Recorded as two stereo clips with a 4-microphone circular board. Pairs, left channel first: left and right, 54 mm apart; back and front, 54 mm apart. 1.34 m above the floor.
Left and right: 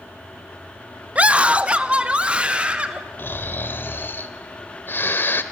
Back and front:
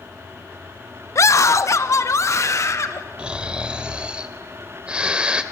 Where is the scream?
155° right, 0.7 m; by 3.0 s 160° right, 2.5 m.